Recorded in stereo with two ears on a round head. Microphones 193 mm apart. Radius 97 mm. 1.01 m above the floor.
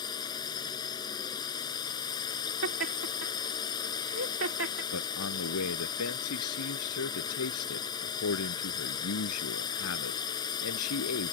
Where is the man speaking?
90° left.